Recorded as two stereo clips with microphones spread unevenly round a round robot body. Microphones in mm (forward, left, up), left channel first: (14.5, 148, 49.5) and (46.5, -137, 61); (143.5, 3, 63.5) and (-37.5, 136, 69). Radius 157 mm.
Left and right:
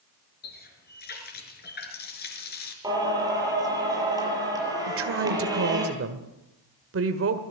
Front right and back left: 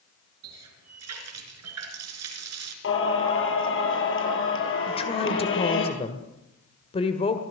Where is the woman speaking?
90° right, 1.7 m.